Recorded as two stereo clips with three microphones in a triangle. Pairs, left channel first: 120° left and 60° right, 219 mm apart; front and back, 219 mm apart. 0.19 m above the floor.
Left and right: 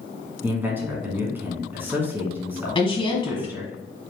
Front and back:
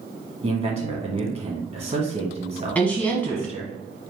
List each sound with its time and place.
0.4 s a man speaking: 135° right, 1.7 m
2.8 s a woman speaking: 75° left, 1.2 m